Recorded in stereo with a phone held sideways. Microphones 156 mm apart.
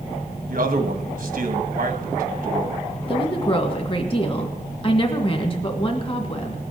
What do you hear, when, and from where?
0.5 s a man speaking: 60° right (ahead or behind), 1.8 m
3.1 s a woman speaking: 35° left (ahead or behind), 1.9 m